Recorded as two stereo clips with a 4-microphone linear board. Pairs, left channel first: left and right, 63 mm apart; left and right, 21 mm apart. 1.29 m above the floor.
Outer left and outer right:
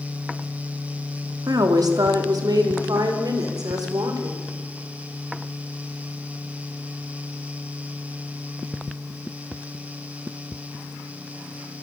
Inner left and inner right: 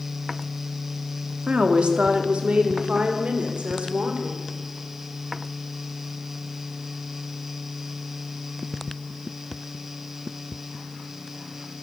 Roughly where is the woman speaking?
Right.